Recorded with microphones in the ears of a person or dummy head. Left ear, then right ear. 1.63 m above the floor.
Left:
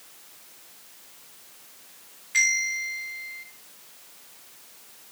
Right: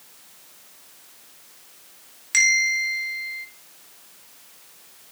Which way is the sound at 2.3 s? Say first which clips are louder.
Right 5 dB; 70° right (ahead or behind).